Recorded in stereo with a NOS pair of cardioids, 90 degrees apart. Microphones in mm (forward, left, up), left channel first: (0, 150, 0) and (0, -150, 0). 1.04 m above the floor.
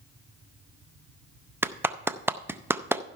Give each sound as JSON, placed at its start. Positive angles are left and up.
{"t": 1.6, "sound": "a clap", "azimuth_deg": -5, "distance_m": 0.6}